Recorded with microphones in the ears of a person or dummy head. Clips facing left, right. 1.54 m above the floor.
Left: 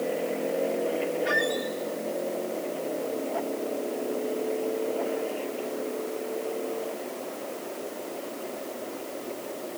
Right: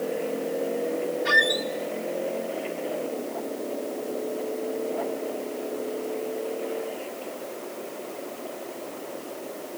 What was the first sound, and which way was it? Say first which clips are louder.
A squeak: even; 55° right (ahead or behind).